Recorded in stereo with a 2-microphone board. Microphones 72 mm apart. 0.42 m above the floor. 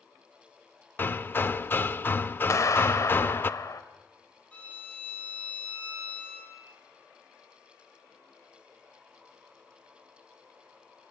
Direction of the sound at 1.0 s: 30° left (ahead or behind).